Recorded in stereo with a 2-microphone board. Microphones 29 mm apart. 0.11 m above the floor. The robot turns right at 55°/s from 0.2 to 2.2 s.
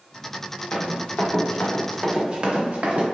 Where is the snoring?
No snoring in this recording.